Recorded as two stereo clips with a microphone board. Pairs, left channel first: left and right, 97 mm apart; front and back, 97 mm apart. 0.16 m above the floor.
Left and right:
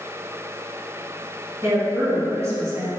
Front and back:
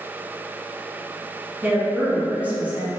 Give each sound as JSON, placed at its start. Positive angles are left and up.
{"t": 1.6, "sound": "a woman speaking", "azimuth_deg": -120, "distance_m": 1.5}